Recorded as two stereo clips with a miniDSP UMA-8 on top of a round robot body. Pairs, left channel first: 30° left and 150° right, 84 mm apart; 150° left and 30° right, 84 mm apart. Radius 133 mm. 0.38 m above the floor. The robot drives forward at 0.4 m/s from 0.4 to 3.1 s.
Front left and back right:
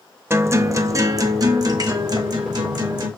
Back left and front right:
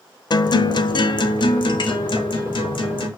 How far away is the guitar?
About 0.6 m.